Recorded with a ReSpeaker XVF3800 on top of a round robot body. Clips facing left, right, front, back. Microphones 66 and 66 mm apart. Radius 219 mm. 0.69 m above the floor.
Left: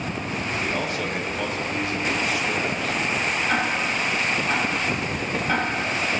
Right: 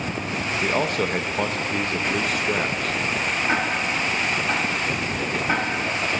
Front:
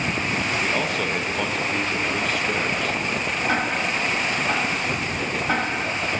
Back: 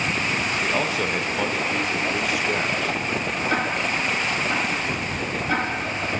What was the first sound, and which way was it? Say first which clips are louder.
A man speaking: right 7 dB, even; 100° right.